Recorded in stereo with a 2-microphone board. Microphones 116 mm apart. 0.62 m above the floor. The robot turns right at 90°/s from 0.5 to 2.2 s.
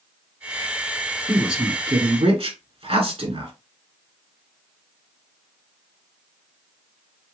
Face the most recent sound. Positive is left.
turn(degrees=-115)